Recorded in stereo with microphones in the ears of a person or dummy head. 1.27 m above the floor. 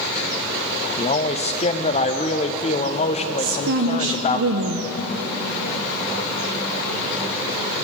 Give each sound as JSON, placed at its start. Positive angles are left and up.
{"t": 1.0, "sound": "a man speaking", "side_deg": 30, "distance_m": 0.7}
{"t": 3.4, "sound": "a woman speaking", "side_deg": -65, "distance_m": 0.6}